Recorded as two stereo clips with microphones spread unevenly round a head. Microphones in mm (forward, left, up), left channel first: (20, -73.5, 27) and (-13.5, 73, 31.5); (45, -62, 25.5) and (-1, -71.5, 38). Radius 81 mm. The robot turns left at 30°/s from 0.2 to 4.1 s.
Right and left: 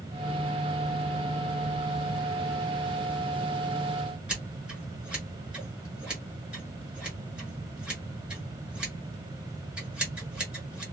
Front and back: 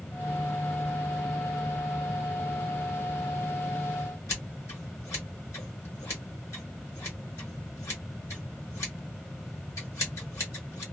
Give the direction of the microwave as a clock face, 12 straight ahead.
I don't hear a microwave.